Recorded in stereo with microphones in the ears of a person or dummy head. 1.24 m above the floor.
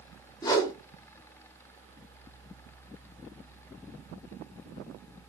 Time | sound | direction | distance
0.4 | a whoosh | 20° left (ahead or behind) | 0.6 m